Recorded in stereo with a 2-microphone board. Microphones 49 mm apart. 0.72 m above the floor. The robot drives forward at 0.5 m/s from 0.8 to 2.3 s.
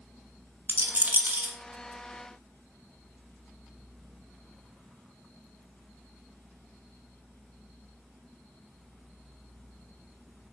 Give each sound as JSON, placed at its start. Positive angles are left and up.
{"t": 0.7, "sound": "a rattle", "side_deg": -40, "distance_m": 0.5}